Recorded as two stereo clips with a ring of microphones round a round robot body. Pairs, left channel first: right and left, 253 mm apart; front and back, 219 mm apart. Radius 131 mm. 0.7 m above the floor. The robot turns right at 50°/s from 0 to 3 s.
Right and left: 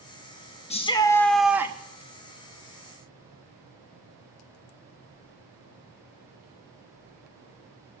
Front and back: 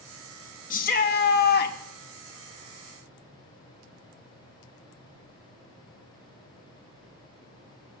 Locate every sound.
0.7 s a shout: 35° right, 1.0 m; by 1.8 s 20° left, 1.0 m